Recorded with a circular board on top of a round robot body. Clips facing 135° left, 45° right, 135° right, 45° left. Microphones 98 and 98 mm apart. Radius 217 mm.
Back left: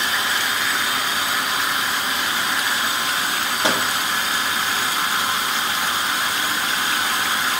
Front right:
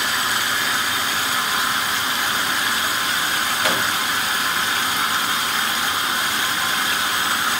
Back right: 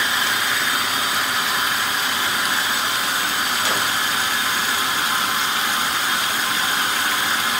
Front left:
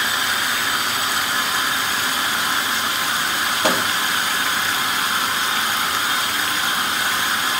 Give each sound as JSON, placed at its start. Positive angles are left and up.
{"t": 3.6, "sound": "a microwave", "azimuth_deg": 75, "distance_m": 2.5}